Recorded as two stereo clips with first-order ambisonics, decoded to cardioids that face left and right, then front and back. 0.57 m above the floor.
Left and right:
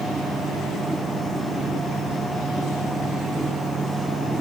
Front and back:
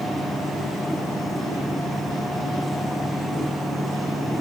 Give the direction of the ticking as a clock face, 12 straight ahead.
I don't hear ticking.